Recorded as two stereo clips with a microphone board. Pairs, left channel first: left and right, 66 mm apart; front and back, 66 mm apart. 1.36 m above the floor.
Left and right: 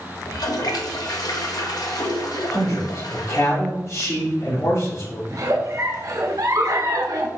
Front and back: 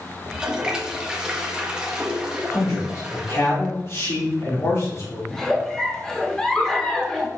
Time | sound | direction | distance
0.2 | a toilet flushing | 100° left | 1.1 m
2.5 | a man speaking | 45° left | 3.5 m
5.3 | a giggle | 80° right | 1.2 m